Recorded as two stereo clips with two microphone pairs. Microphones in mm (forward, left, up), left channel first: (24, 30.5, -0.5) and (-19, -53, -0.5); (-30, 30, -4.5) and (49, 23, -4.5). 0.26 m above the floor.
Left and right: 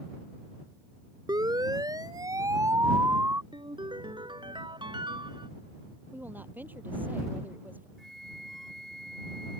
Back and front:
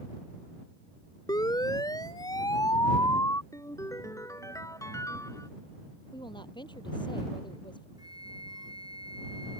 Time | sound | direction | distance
1.3 | a siren | 155° right | ?
3.5 | a ringtone | 140° right | ?
6.1 | a woman speaking | 170° left | ?
8.0 | a flute | 25° right | ?